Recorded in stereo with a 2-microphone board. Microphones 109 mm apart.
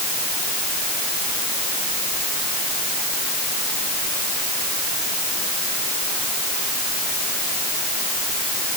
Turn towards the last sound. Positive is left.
No sound to turn to.